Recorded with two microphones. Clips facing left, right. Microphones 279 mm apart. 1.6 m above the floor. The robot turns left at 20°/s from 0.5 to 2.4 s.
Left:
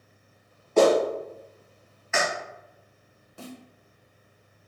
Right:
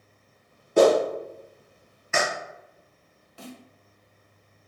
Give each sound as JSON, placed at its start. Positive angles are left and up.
{"t": 0.8, "sound": "a clap", "side_deg": -15, "distance_m": 1.0}
{"t": 3.4, "sound": "a snare drum", "side_deg": 55, "distance_m": 0.9}